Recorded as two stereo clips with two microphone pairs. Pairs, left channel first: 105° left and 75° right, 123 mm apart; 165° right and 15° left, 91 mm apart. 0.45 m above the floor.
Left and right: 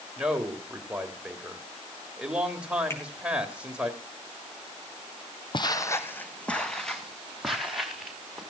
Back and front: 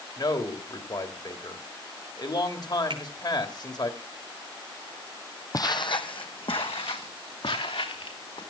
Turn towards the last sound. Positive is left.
turn(degrees=-160)